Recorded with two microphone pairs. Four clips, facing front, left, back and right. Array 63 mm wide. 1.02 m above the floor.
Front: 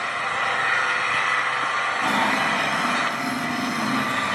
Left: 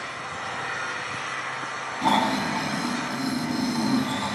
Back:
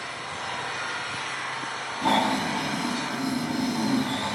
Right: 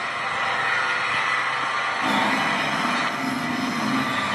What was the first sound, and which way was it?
An engine running, 30° right.